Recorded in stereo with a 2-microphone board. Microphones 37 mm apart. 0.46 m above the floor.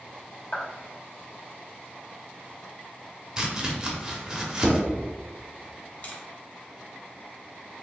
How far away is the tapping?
About 0.9 m.